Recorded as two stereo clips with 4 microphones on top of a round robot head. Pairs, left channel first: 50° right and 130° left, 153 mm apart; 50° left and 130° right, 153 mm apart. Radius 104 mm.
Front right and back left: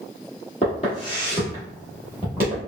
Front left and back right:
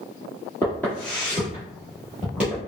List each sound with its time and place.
0.6 s footsteps: 25° right, 1.4 m; by 2.6 s 160° left, 1.2 m